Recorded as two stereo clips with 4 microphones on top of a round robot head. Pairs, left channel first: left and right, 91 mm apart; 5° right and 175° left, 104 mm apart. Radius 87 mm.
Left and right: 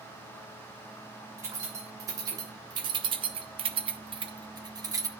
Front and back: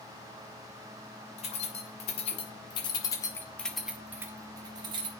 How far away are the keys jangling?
About 2.5 m.